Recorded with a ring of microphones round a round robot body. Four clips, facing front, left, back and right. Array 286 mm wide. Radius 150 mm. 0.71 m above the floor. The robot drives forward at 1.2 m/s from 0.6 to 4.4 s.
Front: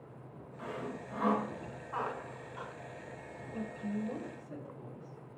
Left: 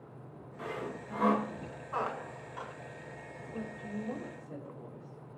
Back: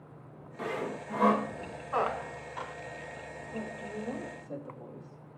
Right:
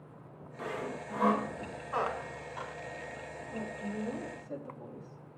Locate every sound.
0.6 s sawing: straight behind, 1.1 m
1.9 s a squeak: 170° right, 0.8 m; by 2.7 s 175° right, 1.8 m
3.5 s a woman speaking: 145° right, 4 m; by 5.2 s 155° right, 5 m